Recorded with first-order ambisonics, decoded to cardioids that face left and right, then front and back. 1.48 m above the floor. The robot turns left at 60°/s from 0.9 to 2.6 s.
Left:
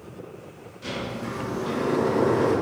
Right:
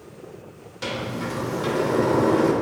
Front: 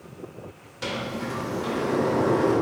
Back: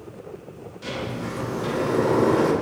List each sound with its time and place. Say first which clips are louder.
0.8 s a sliding door: right 3 dB, front 1 dB; 50° right, 3 m; by 2.5 s 150° right, 3 m